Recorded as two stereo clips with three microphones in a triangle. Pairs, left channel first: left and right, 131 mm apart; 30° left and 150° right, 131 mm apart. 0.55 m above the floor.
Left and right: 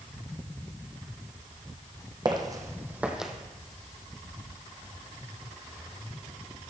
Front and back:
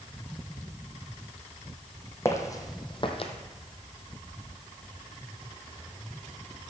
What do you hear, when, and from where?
2.2 s footsteps: 35° right, 1.3 m; by 3.3 s straight ahead, 1.0 m